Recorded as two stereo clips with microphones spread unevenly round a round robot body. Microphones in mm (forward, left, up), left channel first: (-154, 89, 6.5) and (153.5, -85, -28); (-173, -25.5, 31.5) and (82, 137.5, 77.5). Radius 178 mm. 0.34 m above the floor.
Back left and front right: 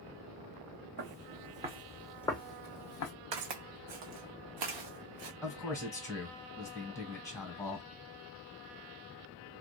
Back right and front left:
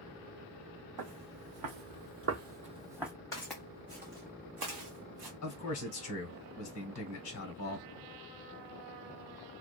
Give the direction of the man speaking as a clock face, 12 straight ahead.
4 o'clock.